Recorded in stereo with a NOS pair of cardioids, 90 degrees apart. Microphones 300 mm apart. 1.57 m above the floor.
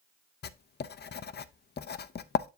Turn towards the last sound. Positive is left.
turn(degrees=35)